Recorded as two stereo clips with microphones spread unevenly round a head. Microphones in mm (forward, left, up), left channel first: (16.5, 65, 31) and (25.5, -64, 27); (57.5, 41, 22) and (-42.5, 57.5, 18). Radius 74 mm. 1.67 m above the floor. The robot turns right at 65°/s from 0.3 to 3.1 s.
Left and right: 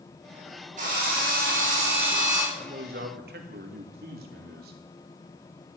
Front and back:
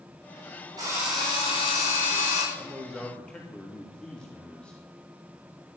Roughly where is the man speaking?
Behind right.